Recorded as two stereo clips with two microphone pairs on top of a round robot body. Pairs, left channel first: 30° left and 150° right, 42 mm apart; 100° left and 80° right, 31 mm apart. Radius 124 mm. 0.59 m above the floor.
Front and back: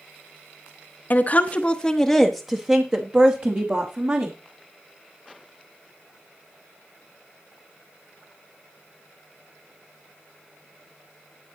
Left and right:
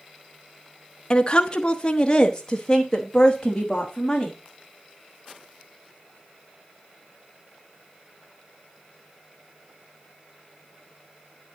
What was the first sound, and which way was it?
A woman speaking, 55° left.